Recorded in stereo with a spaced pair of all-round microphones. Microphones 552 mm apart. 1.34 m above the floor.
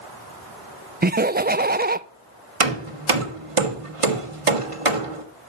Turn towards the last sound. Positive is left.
turn(degrees=-70)  # may be behind; listen again after turning